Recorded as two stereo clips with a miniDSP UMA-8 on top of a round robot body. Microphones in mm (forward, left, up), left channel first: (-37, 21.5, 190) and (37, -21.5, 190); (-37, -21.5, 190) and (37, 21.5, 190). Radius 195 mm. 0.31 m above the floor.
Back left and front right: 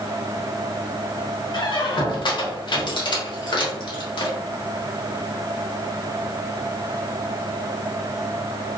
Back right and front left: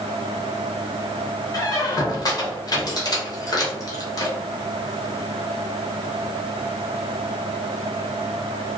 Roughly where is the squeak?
Behind.